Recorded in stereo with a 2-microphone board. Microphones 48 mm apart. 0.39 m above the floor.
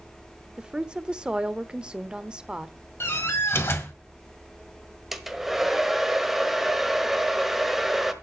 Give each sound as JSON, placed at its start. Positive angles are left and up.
{"t": 0.6, "sound": "a woman speaking", "side_deg": -20, "distance_m": 0.8}
{"t": 3.0, "sound": "a door slam", "side_deg": 60, "distance_m": 1.8}
{"t": 5.1, "sound": "a hair dryer", "side_deg": -5, "distance_m": 1.2}